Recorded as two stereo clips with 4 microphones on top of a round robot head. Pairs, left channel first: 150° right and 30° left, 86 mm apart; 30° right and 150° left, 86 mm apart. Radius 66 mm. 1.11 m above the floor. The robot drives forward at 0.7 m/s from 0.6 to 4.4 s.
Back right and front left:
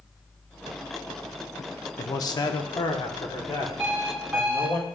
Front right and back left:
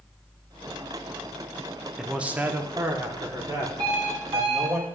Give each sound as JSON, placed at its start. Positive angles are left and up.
{"t": 2.0, "sound": "a man speaking", "azimuth_deg": -130, "distance_m": 0.7}
{"t": 3.8, "sound": "an alarm clock", "azimuth_deg": 105, "distance_m": 1.7}